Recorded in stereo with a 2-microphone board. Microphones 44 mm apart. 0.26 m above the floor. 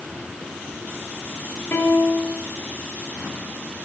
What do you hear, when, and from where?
1.7 s a piano: 55° left (ahead or behind), 1.6 m